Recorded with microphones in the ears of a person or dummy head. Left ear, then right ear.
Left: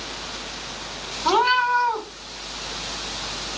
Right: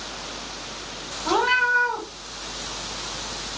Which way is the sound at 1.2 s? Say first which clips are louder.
Left 2 dB; 60° left (ahead or behind).